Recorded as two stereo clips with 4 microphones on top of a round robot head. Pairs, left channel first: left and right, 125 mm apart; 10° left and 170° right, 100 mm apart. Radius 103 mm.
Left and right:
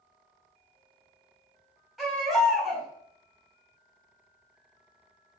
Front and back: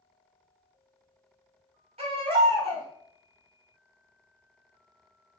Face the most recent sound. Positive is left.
turn(degrees=180)